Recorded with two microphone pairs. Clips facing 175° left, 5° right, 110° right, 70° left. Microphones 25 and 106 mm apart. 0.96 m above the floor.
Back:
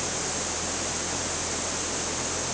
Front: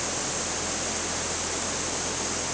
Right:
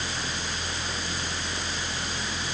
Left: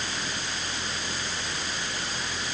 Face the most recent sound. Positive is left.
No sound to turn to.